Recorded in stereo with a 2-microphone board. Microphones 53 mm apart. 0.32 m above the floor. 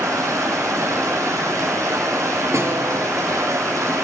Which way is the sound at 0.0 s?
75° right (ahead or behind).